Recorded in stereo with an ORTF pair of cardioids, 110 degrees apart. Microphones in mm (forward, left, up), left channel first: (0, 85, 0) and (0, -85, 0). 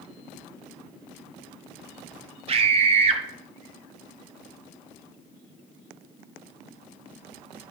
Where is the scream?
35° right, 1.2 m.